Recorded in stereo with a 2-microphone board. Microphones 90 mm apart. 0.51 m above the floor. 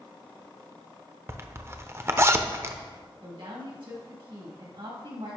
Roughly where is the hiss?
No hiss in this recording.